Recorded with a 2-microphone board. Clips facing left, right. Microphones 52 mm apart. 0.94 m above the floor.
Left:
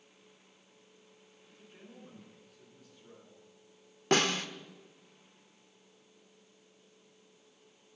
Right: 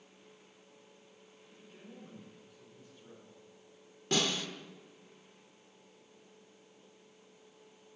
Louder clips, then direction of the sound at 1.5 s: Right 1 dB; 5° left (ahead or behind).